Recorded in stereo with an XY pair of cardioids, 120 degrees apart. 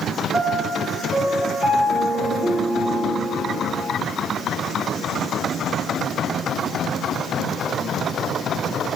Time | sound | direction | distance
0.3 | a piano | 30° right | 1.7 m